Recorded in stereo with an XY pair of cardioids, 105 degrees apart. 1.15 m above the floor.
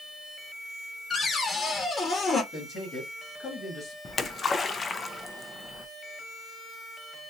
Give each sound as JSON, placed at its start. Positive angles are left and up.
{"t": 1.1, "sound": "a cupboard door", "azimuth_deg": 35, "distance_m": 1.4}
{"t": 2.5, "sound": "a man speaking", "azimuth_deg": 45, "distance_m": 2.0}
{"t": 4.0, "sound": "a splash", "azimuth_deg": 35, "distance_m": 0.6}